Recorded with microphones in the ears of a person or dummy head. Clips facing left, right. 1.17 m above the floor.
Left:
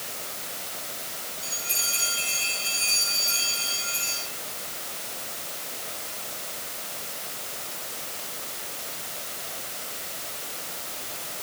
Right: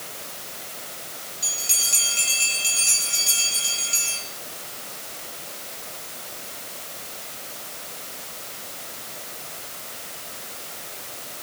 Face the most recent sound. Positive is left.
turn(degrees=-70)  # may be behind; listen again after turning